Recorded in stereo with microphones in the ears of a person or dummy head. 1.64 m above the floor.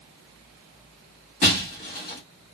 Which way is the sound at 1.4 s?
25° left (ahead or behind).